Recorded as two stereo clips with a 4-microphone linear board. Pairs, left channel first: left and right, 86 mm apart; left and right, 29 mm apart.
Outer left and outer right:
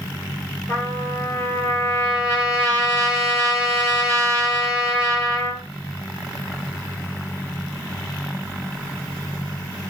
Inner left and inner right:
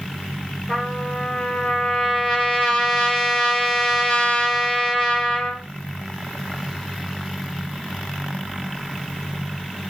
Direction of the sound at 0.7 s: 25° left (ahead or behind).